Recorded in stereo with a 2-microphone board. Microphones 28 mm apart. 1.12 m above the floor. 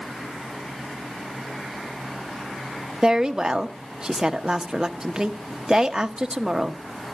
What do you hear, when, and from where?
3.0 s a woman speaking: 20° right (ahead or behind), 0.9 m